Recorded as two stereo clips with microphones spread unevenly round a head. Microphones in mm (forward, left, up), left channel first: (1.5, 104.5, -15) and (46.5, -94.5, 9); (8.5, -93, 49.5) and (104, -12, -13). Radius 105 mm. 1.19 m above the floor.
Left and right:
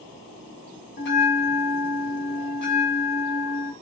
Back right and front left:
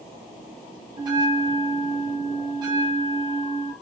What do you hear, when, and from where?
1.0 s a bell: 130° left, 0.8 m